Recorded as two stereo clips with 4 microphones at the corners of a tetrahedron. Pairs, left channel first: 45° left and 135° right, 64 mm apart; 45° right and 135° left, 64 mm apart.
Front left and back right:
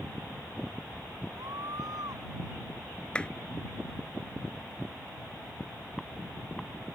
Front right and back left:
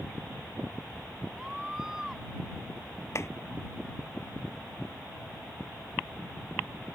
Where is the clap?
25° right.